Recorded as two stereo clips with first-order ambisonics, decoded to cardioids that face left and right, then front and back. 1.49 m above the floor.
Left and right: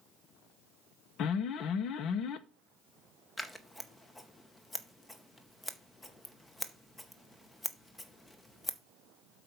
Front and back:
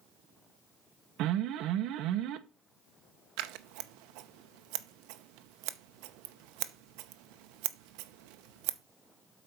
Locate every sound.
1.2 s an alarm: 140° left, 0.8 m
3.4 s scissors: 170° left, 0.8 m